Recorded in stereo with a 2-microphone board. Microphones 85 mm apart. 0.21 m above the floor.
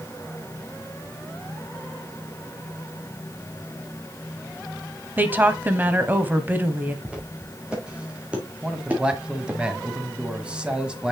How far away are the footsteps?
About 4.5 m.